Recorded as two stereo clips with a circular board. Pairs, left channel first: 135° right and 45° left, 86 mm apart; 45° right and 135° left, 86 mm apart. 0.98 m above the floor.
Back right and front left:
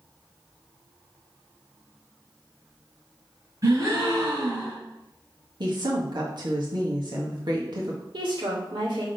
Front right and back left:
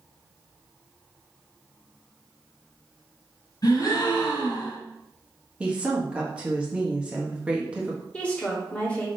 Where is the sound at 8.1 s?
30° left, 2.5 m.